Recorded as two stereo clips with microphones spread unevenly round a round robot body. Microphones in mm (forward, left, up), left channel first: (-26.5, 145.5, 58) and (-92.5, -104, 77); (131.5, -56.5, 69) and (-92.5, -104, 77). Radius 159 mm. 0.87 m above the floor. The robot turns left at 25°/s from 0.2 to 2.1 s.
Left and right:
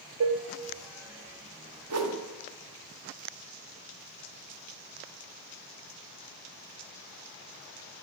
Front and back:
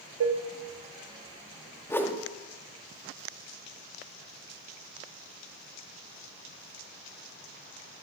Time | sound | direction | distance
0.2 | dishes clattering | 140° right | 1.0 m
1.9 | a whoosh | 65° right | 1.4 m